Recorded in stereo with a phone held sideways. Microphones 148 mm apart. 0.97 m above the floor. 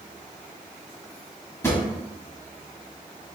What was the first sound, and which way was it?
A drawer, 20° left (ahead or behind).